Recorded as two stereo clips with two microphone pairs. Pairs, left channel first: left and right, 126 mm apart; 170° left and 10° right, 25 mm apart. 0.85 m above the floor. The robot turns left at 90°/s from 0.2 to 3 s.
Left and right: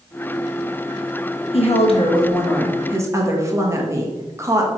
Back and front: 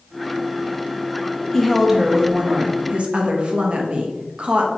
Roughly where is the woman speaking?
Left.